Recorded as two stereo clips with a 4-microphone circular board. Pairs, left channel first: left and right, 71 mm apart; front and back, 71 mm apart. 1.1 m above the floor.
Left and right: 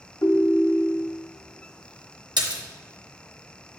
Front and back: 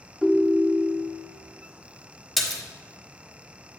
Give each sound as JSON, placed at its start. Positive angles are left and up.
{"t": 0.2, "sound": "a ringtone", "azimuth_deg": 100, "distance_m": 0.9}
{"t": 2.4, "sound": "a splash", "azimuth_deg": -90, "distance_m": 1.0}